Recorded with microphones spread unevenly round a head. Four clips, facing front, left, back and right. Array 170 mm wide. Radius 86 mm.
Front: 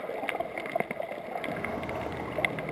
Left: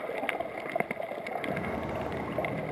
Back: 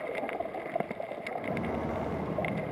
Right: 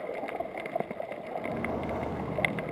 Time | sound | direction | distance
1.4 | footsteps | 125° right | 5 m